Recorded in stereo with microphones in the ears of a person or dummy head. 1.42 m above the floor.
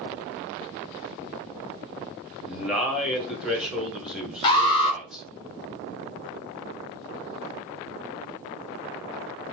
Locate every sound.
2.4 s a man speaking: 5° right (ahead or behind), 1.1 m
4.4 s an alarm: 25° left (ahead or behind), 0.7 m